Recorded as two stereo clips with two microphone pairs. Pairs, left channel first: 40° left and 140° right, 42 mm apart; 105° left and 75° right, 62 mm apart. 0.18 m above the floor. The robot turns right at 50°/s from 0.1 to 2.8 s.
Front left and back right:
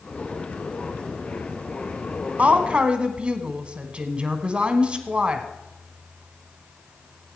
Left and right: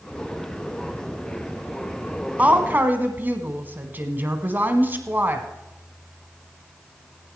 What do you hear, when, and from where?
2.4 s a woman speaking: 120° right, 1.2 m; by 5.5 s 100° right, 1.2 m